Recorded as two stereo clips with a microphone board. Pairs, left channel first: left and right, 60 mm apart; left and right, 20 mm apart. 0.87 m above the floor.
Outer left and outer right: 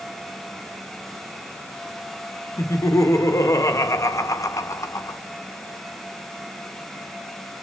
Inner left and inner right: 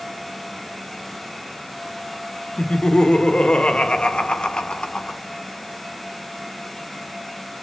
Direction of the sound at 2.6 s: 60° left (ahead or behind).